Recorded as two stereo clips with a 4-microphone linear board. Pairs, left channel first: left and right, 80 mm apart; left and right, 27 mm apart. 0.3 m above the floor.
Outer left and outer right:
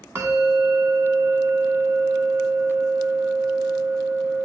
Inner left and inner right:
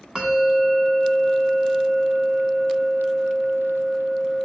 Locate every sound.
0.1 s a bell: 35° right (ahead or behind), 1.3 m